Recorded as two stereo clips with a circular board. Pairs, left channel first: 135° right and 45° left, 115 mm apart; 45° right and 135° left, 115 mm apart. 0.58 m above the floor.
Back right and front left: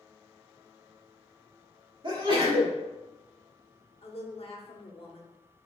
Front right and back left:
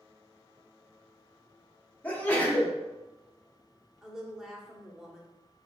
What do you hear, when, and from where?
2.0 s a sneeze: 25° left, 1.7 m
4.0 s a woman speaking: 140° right, 0.9 m